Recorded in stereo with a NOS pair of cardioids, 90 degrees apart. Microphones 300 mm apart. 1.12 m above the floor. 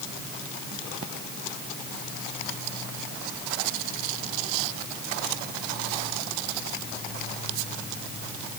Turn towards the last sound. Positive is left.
No sound to turn to.